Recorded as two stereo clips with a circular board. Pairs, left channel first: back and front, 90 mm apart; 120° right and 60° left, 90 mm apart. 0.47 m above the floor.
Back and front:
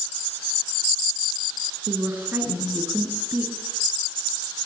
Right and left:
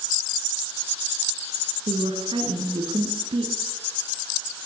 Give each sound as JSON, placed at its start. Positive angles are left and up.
{"t": 1.9, "sound": "a woman speaking", "azimuth_deg": 65, "distance_m": 5.0}